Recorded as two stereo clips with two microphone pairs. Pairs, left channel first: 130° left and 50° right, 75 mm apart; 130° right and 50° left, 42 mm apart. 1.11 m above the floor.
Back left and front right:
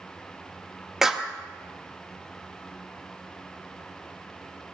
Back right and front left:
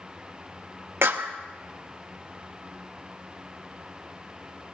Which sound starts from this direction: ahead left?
A clap, at 1.0 s.